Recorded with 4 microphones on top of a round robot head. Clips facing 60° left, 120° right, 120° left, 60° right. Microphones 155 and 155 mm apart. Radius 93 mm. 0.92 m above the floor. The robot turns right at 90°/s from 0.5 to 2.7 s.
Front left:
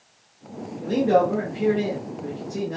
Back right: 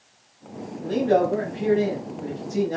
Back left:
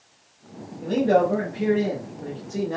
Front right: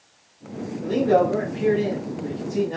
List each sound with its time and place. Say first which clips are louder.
0.8 s a man speaking: front left 1 dB, front right 1 dB; 25° left, 1.4 m; by 2.8 s 165° right, 1.4 m